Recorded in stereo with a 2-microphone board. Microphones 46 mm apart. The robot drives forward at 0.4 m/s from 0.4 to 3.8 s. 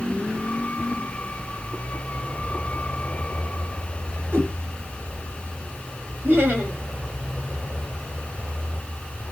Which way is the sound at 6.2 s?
50° right (ahead or behind).